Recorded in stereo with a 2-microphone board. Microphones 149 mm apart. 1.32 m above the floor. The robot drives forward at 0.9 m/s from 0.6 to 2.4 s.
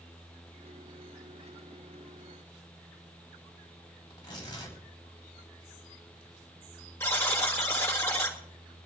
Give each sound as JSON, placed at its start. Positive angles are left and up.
{"t": 4.1, "sound": "tearing paper", "side_deg": 30, "distance_m": 4.0}
{"t": 7.0, "sound": "a buzzer", "side_deg": 15, "distance_m": 2.5}